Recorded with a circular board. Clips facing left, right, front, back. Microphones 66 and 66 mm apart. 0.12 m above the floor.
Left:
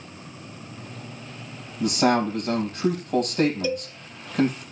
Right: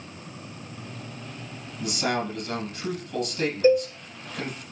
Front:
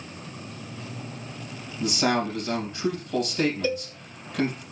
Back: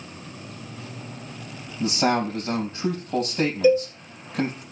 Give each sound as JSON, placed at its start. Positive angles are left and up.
{"t": 1.8, "sound": "a man speaking", "azimuth_deg": 120, "distance_m": 4.0}
{"t": 3.6, "sound": "a cowbell", "azimuth_deg": -115, "distance_m": 1.3}